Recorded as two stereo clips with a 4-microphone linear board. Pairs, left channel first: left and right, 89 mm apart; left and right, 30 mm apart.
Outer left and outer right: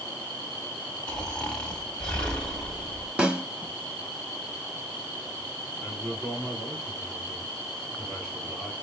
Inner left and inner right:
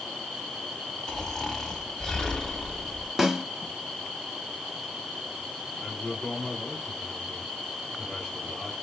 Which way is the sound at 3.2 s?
15° right (ahead or behind).